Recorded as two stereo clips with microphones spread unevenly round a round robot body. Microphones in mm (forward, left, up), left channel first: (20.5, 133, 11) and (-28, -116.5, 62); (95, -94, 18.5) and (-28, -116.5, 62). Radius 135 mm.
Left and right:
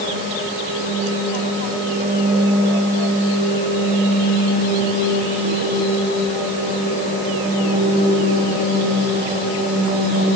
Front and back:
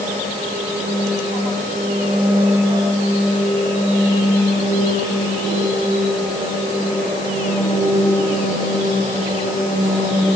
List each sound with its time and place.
Only background noise.